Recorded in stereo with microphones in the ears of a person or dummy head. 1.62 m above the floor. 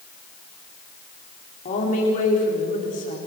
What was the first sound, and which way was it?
A woman speaking, 45° left (ahead or behind).